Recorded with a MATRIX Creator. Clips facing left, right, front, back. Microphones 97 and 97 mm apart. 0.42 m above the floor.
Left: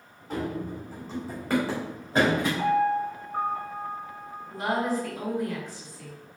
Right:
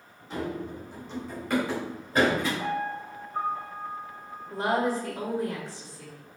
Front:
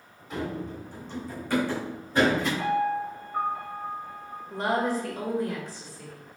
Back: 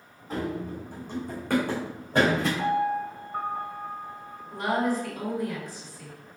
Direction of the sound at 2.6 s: 120° left.